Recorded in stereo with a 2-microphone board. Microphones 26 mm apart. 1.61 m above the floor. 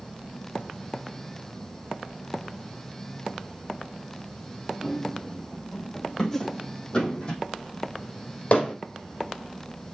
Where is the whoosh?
10° left (ahead or behind), 1.1 m.